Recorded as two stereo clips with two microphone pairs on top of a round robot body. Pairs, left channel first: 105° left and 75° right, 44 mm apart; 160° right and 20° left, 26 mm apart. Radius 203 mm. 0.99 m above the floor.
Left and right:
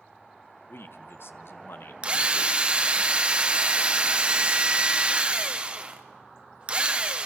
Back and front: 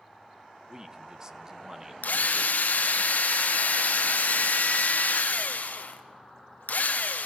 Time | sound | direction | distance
0.7 | a man speaking | 85° left | 1.7 m
2.0 | a drill | 145° right | 1.0 m